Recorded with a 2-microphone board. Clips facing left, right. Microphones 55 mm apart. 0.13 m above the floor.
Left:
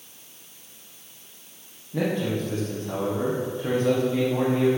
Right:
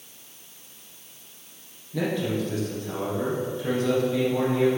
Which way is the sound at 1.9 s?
30° left (ahead or behind).